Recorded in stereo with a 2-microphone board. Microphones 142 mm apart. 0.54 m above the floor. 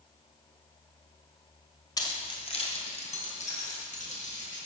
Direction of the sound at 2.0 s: 30° left (ahead or behind).